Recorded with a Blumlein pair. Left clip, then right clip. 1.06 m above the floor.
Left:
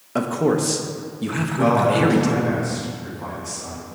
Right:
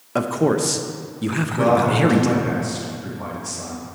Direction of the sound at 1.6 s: 40° right.